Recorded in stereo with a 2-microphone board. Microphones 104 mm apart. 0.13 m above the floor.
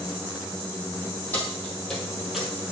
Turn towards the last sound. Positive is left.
turn(degrees=-5)  # may be behind; listen again after turning